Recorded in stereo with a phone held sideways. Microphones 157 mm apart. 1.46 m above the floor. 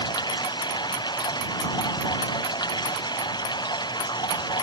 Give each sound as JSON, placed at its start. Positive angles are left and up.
{"t": 0.0, "sound": "running water", "side_deg": 25}